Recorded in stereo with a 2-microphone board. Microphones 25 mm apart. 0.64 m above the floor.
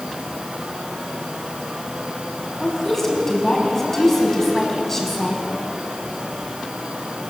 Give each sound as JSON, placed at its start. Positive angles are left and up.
{"t": 2.6, "sound": "a woman speaking", "side_deg": 15, "distance_m": 6.0}